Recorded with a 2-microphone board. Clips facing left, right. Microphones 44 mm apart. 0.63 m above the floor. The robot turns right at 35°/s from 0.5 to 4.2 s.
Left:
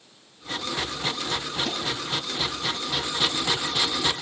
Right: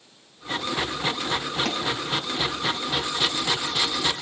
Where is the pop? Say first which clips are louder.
Right 3 dB; 65° right (ahead or behind), 7 m; by 1.8 s 60° right (ahead or behind), 7 m.